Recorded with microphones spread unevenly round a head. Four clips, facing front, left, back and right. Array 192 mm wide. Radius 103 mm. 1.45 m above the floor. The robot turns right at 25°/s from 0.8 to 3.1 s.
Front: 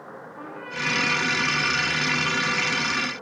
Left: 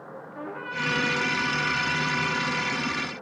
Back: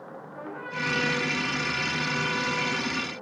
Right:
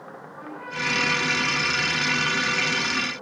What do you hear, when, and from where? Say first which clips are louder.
0.3 s a trumpet: left 1 dB, even; 110° left, 3 m; by 2.9 s 160° left, 3 m